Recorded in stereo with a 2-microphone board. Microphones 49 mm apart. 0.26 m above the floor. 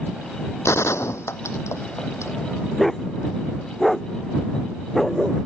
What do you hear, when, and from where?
0.7 s a gunshot: 70° left (ahead or behind)
2.8 s a dog barking: 5° left (ahead or behind)